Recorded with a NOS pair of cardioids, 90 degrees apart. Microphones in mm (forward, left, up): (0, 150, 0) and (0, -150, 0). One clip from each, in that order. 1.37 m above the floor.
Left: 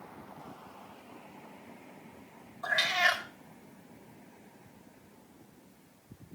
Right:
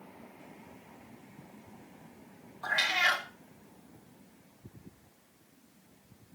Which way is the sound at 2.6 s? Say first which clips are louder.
Even; 20° right.